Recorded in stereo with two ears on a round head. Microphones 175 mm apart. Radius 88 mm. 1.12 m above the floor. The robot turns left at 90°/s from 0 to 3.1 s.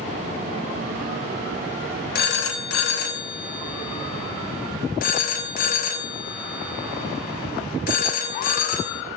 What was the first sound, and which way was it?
A phone ringing, 50° left (ahead or behind).